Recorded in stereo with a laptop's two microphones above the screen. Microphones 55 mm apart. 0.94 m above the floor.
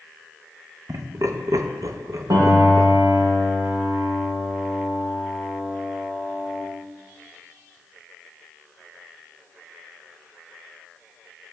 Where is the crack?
I don't hear a crack.